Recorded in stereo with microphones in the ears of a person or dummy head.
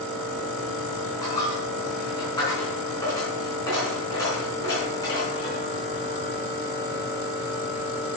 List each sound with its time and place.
1.2 s a dropped coin: 15° left (ahead or behind), 4 m